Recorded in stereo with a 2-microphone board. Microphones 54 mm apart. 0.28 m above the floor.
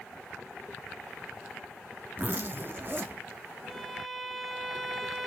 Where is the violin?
Centre (ahead or behind), 0.8 m.